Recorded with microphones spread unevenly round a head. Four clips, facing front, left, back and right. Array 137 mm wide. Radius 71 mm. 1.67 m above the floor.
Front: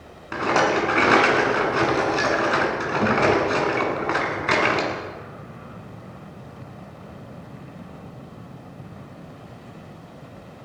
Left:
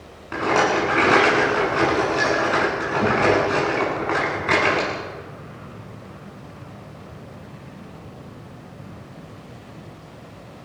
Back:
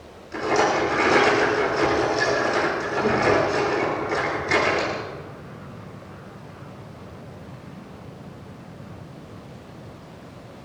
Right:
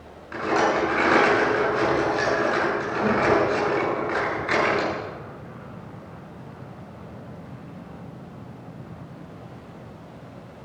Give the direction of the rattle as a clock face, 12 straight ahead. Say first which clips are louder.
Left 2 dB, even; 11 o'clock.